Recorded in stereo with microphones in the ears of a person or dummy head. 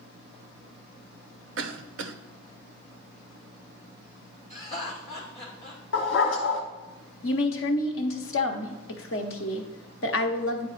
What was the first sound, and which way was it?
A cough, 60° right (ahead or behind).